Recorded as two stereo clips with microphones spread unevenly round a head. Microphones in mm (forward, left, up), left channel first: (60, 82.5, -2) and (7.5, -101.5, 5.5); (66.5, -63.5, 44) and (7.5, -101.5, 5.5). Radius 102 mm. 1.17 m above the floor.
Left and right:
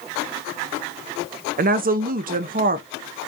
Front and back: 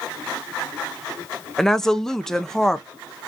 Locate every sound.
1.6 s a woman speaking: 80° right, 0.6 m